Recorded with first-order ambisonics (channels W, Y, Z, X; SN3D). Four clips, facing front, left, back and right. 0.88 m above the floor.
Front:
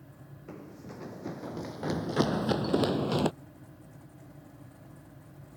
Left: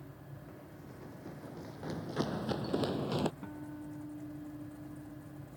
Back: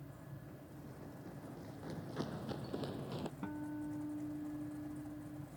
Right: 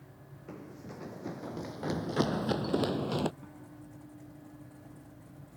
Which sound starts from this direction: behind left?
A guitar, at 3.4 s.